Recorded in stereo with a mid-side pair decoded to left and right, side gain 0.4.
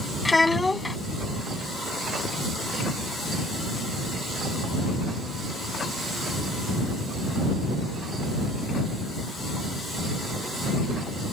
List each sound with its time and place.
0.2 s a child speaking: 25° left